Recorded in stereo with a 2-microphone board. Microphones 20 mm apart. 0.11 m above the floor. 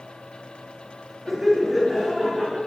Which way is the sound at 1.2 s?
Centre (ahead or behind).